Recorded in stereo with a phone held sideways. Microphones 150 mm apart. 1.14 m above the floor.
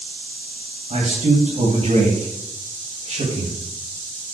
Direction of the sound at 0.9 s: 50° right (ahead or behind).